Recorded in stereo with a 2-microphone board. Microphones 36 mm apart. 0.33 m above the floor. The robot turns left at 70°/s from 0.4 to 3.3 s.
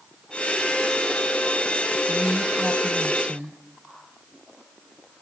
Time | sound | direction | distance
2.1 | a woman speaking | 45° left | 1.7 m